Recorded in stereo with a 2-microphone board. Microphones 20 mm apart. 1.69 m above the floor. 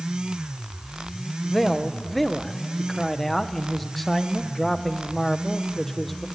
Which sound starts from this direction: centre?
A man speaking, at 1.4 s.